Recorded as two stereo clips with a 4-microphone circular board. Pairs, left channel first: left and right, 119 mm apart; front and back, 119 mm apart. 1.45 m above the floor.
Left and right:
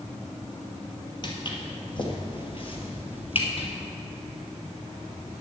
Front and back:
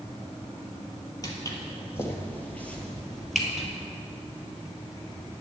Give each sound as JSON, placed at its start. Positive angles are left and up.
{"t": 1.2, "sound": "footsteps", "azimuth_deg": 50, "distance_m": 2.0}